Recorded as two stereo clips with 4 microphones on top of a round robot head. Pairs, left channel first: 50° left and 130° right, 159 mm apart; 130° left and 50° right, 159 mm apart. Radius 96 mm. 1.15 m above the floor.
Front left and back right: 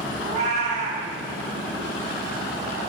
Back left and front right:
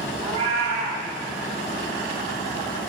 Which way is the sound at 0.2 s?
95° right.